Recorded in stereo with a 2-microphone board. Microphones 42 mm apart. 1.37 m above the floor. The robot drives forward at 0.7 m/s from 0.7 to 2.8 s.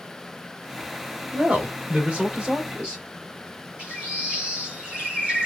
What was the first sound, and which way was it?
A woman speaking, 40° right (ahead or behind).